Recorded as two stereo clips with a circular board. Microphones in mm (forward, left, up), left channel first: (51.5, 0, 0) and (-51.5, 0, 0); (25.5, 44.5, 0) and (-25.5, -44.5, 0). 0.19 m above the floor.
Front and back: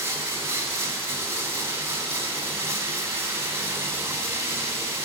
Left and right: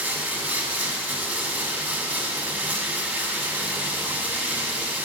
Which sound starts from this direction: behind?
Running water, at 0.0 s.